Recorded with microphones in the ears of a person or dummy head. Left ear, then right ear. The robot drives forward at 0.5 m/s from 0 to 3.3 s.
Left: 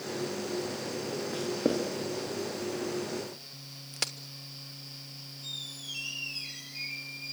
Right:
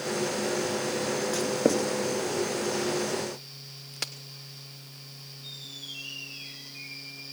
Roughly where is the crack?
Centre.